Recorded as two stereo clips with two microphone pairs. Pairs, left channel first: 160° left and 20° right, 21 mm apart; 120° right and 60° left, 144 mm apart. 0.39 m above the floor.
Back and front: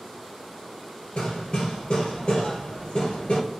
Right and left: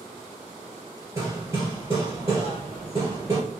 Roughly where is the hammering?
Behind left.